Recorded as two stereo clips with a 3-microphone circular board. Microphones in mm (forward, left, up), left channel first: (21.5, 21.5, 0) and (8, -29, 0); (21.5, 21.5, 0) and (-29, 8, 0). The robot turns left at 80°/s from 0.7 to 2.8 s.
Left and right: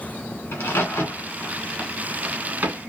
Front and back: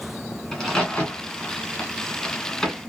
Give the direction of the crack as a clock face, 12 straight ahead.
9 o'clock.